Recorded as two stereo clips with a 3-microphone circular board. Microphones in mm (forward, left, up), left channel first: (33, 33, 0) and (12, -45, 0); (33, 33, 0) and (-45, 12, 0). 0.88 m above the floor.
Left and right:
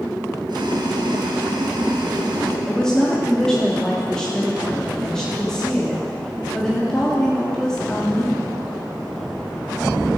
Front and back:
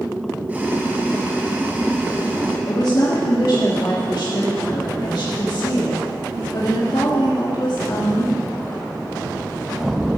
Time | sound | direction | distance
0.5 | boiling | 95° right | 2 m
2.7 | a woman speaking | 5° right | 1.5 m